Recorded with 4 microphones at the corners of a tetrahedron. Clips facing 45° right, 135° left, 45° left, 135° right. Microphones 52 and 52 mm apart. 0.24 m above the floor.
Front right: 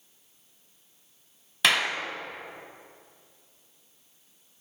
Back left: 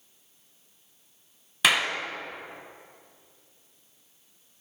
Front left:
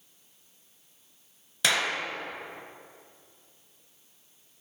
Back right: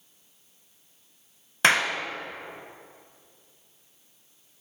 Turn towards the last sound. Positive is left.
turn(degrees=-135)